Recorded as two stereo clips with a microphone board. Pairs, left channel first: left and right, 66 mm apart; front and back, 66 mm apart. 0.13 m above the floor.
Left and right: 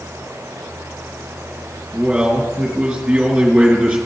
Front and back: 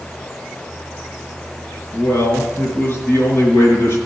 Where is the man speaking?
15° right, 2.5 m.